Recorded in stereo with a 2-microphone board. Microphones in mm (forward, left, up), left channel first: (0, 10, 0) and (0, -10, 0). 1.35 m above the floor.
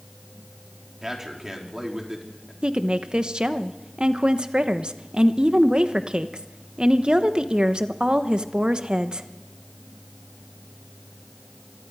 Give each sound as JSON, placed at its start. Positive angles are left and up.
{"t": 1.0, "sound": "a man speaking", "side_deg": -20, "distance_m": 3.5}
{"t": 2.6, "sound": "a woman speaking", "side_deg": -50, "distance_m": 1.1}